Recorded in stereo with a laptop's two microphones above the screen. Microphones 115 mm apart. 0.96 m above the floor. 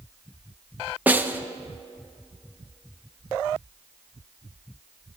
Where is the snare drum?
15° right (ahead or behind), 0.7 m.